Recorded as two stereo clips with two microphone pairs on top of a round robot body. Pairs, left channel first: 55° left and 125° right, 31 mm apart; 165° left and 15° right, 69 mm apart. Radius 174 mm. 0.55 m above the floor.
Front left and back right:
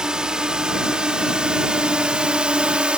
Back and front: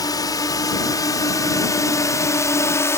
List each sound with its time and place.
0.0 s a drone: 170° left; by 3.0 s 170° right